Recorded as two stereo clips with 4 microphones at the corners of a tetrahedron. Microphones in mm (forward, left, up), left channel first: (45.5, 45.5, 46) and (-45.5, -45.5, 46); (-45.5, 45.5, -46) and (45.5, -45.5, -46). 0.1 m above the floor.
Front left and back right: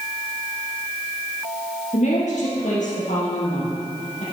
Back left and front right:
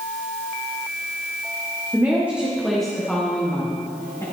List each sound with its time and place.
1.9 s a woman speaking: 25° left, 3 m; by 4.2 s 70° left, 5 m